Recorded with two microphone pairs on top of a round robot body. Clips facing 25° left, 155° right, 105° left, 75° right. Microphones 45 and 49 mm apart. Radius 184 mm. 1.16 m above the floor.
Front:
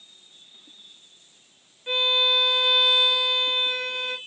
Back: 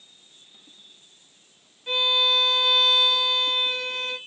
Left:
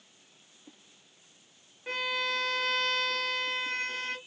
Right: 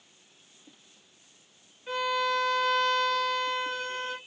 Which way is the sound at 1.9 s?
100° left.